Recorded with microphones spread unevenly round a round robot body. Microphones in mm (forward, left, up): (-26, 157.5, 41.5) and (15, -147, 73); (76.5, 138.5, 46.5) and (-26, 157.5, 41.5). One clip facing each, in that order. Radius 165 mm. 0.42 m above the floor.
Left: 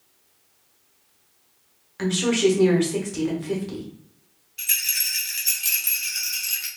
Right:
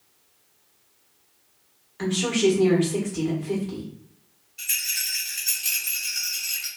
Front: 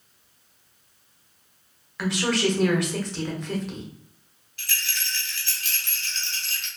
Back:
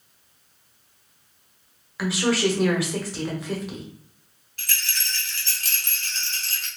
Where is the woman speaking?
90° left, 1.4 m.